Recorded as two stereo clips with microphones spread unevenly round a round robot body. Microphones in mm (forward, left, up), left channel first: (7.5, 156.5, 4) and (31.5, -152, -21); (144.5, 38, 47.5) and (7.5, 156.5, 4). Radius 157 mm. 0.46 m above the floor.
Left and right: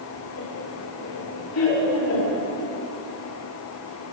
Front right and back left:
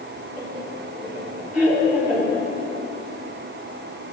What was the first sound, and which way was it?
Laughter, 70° left.